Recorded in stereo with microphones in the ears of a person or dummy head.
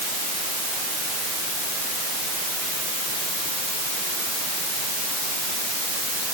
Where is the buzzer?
I don't hear a buzzer.